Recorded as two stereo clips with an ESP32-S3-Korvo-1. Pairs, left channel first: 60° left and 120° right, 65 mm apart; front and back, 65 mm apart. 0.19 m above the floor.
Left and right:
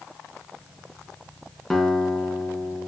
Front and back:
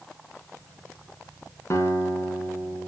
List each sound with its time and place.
1.7 s a guitar: 25° right, 2.5 m